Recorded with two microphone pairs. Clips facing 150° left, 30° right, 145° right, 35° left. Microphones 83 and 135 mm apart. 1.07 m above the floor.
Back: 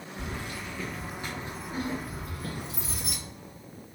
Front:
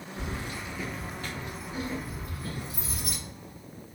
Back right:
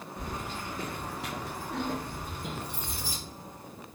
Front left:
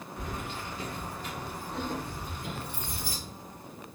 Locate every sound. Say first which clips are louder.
0.2 s keys jangling: front 1 dB, even; 85° right, 0.9 m; by 3.2 s 155° left, 1.4 m